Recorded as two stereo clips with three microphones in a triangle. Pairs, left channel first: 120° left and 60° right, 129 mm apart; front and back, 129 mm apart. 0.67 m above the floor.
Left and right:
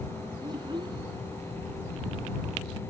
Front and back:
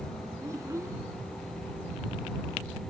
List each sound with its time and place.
0.4 s a child speaking: 115° right